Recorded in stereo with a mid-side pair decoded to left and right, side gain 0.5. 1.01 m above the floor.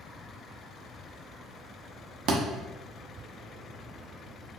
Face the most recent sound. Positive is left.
turn(degrees=-60)